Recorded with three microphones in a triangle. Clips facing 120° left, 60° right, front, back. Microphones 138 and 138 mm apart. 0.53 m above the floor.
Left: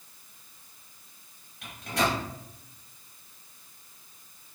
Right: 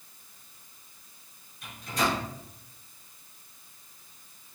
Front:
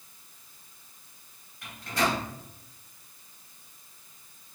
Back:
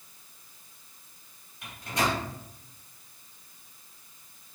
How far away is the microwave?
About 2 m.